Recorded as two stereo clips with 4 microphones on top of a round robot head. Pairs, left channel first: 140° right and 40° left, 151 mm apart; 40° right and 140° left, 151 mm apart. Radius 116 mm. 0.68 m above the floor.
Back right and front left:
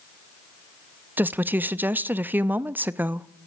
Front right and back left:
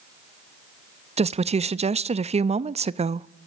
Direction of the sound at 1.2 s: 115° left.